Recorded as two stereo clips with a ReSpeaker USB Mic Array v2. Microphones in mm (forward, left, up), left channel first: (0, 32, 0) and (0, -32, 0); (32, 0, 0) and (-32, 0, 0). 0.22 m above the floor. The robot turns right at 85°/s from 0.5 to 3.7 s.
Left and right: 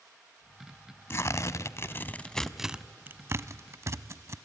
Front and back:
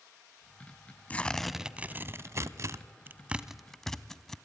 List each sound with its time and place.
1.1 s tearing paper: 60° left, 0.6 m; by 4.4 s 80° right, 0.6 m